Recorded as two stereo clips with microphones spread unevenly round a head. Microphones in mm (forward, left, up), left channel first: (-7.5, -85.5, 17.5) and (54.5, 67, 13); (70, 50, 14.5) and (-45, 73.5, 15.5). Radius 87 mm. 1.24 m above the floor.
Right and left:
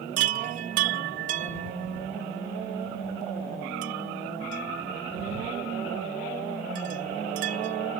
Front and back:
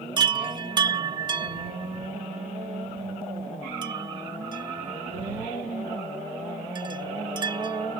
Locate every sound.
0.2 s a chime: 120° left